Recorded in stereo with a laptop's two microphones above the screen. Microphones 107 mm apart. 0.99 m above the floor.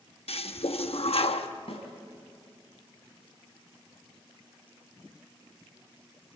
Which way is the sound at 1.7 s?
75° left (ahead or behind).